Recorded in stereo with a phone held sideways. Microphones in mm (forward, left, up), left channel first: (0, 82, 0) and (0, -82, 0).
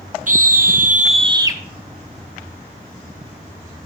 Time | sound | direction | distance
0.3 | a scream | 55° right (ahead or behind) | 1.0 m